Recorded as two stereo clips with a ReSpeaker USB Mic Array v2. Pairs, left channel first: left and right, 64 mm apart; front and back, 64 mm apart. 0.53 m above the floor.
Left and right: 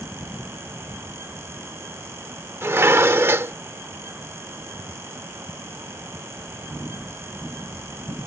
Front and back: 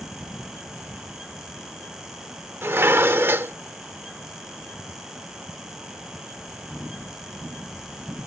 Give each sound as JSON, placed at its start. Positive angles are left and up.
{"t": 2.6, "sound": "dishes clattering", "azimuth_deg": -135}